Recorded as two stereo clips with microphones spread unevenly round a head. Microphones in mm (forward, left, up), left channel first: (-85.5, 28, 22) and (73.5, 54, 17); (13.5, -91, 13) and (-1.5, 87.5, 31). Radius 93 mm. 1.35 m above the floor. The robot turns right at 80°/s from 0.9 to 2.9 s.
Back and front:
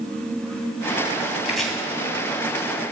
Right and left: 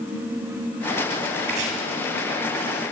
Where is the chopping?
90° left, 2.5 m; by 1.7 s 110° left, 2.5 m.